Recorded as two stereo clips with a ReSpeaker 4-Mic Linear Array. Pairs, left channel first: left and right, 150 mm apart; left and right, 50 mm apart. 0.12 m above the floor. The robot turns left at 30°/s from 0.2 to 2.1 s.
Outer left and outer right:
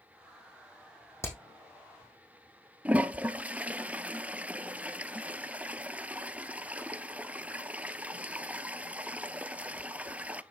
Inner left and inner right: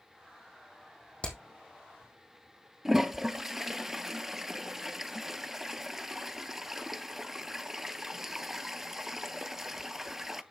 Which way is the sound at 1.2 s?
20° left (ahead or behind).